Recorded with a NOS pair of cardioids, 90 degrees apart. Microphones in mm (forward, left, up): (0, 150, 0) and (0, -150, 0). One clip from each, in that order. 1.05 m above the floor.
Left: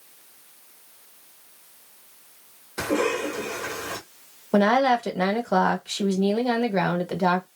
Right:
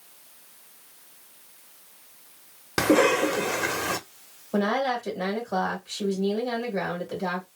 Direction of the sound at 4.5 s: 55° left.